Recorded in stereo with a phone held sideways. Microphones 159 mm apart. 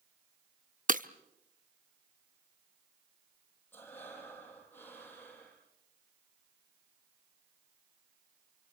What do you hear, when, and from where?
0.9 s breaking glass: 60° right (ahead or behind), 0.6 m
3.7 s breathing: 15° left (ahead or behind), 8 m